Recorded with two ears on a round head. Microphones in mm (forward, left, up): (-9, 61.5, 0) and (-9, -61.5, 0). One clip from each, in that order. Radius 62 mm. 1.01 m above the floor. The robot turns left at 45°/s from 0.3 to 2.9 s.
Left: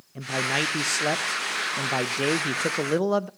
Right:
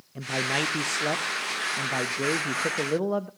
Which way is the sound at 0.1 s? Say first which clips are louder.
Left 1 dB; straight behind.